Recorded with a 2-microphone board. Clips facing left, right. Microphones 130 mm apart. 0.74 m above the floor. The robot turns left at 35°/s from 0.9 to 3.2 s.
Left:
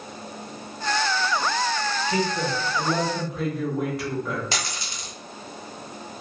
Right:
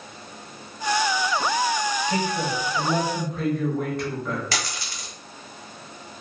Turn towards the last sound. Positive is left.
turn(degrees=25)  # may be behind; listen again after turning